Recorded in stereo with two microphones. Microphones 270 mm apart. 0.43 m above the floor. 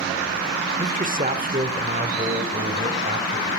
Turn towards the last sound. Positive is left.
turn(degrees=-30)  # may be behind; listen again after turning